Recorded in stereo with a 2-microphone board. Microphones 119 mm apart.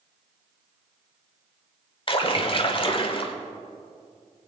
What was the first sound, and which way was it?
A splash, 45° left (ahead or behind).